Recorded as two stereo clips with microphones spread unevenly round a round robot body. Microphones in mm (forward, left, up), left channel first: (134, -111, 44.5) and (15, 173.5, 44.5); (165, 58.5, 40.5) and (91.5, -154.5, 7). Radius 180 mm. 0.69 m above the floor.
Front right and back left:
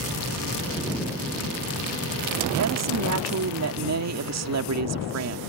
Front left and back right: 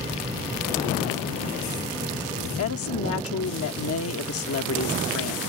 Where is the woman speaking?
85° left.